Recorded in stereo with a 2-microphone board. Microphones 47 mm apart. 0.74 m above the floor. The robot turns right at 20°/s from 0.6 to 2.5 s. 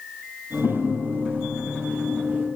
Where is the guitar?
60° left, 2.5 m; by 2.5 s 95° left, 2.5 m.